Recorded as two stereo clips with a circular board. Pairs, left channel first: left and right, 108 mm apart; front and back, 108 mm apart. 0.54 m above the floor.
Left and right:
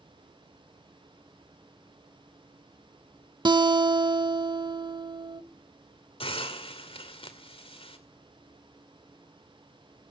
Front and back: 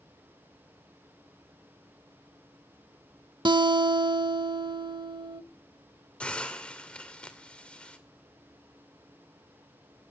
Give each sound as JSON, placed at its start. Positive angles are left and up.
{"t": 3.5, "sound": "a guitar", "azimuth_deg": -135, "distance_m": 0.8}
{"t": 6.2, "sound": "a hiss", "azimuth_deg": 80, "distance_m": 2.0}